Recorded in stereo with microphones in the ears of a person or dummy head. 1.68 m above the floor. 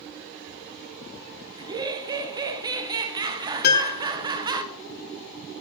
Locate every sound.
1.6 s laughter: 25° right (ahead or behind), 0.9 m
3.6 s a piano: 60° left (ahead or behind), 1.1 m